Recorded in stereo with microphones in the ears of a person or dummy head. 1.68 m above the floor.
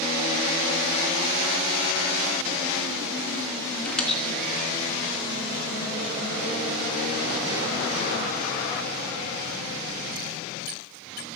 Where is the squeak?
10° left (ahead or behind), 1.6 m.